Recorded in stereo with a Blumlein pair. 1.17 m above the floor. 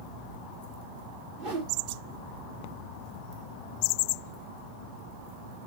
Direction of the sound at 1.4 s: 45° right.